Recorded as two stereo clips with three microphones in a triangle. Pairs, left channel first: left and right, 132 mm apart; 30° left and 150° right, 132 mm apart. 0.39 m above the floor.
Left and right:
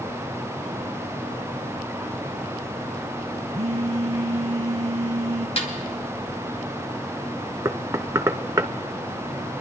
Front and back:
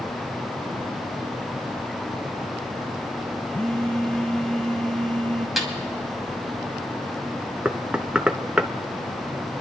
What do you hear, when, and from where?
3.5 s a phone buzzing: 55° right, 0.8 m
5.6 s a snare drum: 120° left, 2 m
7.7 s knocking: 75° right, 0.5 m